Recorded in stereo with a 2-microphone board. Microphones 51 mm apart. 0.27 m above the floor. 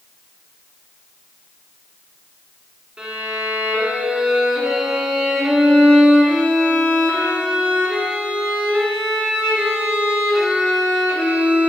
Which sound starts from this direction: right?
A violin, at 3.0 s.